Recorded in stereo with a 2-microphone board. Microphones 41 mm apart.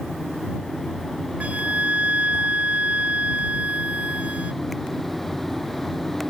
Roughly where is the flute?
Right.